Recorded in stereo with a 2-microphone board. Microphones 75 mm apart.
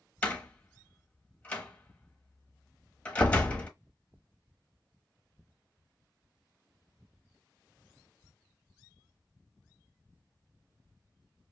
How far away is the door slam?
About 1.0 m.